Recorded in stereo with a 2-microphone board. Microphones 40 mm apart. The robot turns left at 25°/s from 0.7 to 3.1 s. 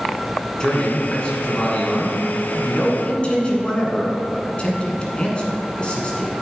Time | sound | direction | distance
0.6 | a man speaking | 135° left | 1.7 m